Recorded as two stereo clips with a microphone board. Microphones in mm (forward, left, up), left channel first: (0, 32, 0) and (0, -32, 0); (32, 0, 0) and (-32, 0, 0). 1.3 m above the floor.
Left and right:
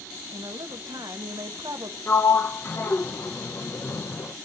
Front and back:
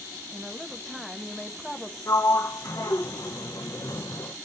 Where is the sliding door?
35° left, 0.9 m.